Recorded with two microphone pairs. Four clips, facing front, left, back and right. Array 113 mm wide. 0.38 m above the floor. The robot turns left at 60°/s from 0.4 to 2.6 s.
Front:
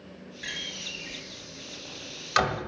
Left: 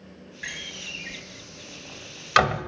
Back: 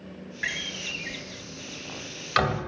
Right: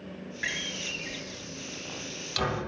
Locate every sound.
0.4 s a door slam: 155° right, 1.4 m; by 2.6 s 75° left, 1.4 m